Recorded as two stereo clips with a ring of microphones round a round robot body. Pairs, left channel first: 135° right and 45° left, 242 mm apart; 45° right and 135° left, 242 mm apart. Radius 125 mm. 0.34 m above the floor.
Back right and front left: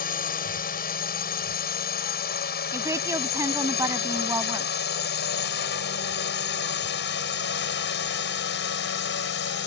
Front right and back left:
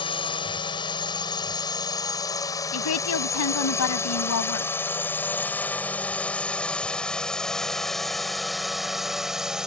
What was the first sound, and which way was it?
A drone, 105° right.